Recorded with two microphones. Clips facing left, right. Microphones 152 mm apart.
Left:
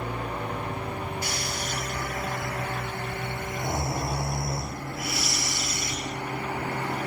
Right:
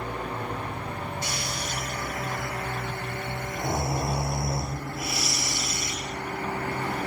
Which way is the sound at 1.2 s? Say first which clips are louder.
Left 1 dB; 20° right (ahead or behind).